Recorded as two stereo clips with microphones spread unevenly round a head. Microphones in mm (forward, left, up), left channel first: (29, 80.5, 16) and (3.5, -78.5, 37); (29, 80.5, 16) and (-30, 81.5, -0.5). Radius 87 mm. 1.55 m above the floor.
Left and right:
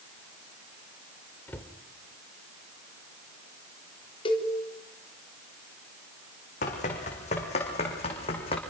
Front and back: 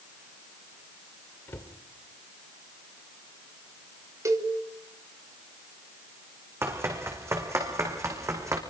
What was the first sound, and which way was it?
A cupboard door, straight ahead.